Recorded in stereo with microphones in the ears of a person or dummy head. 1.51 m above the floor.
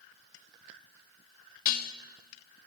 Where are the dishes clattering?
55° left (ahead or behind), 1.8 m.